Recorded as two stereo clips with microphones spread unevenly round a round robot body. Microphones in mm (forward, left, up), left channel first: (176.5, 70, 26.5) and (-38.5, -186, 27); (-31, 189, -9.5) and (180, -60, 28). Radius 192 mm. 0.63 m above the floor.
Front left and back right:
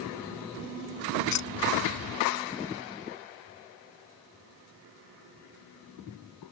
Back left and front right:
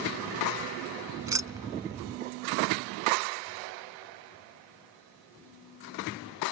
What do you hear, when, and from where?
1.2 s keys jangling: 30° left